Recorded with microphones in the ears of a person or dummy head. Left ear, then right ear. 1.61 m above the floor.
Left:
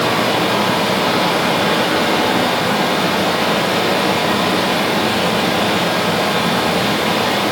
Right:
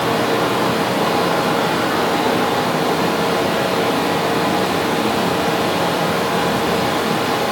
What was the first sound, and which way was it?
A fan, 5° left (ahead or behind).